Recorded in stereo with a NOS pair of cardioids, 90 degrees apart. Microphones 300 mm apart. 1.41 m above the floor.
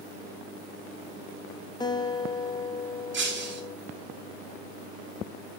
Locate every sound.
1.8 s a guitar: 15° left, 1.5 m
3.1 s breaking glass: 40° right, 3.5 m